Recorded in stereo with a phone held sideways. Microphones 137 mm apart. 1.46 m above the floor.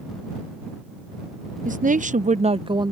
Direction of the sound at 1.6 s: 75° right (ahead or behind).